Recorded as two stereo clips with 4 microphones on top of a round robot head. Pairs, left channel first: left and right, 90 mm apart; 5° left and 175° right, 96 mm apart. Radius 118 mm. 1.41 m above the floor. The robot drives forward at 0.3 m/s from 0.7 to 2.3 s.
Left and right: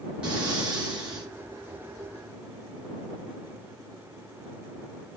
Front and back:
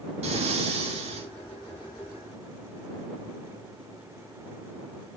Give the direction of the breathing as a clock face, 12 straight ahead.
6 o'clock.